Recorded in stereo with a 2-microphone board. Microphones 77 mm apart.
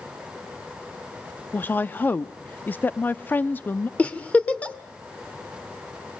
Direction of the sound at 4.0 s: 20° left (ahead or behind).